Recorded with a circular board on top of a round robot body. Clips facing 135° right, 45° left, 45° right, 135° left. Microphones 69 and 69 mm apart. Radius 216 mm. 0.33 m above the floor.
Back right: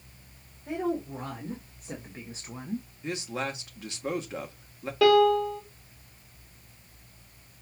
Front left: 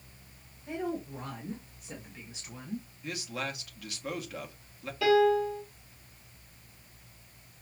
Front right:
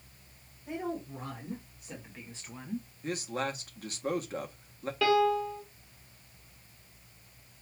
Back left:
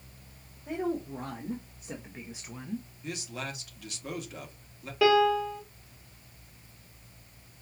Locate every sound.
0.7 s a woman speaking: 175° left, 3 m; by 2.9 s 110° right, 1.3 m
3.0 s a man speaking: 80° right, 1.4 m
5.0 s a piano: 150° right, 2.5 m